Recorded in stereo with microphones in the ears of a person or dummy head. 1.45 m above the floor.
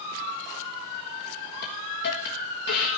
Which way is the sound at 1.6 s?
55° left (ahead or behind).